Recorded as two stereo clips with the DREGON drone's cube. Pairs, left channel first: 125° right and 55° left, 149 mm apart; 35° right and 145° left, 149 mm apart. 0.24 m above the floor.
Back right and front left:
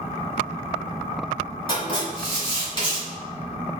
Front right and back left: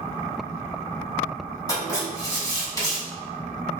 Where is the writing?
90° right, 1.2 m.